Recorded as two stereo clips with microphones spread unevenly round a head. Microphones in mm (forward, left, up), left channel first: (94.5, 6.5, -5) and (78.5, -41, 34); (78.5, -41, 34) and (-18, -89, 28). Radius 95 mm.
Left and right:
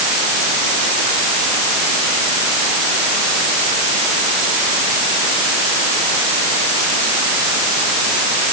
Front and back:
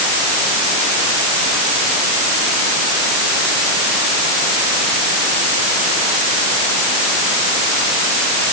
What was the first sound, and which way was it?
Only background noise.